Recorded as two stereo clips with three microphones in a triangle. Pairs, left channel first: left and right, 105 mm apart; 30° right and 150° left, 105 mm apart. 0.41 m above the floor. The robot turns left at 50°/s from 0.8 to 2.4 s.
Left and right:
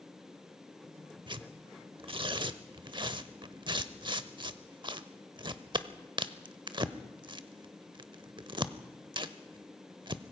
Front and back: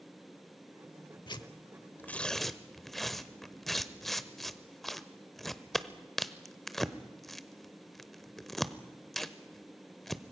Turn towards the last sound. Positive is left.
turn(degrees=-115)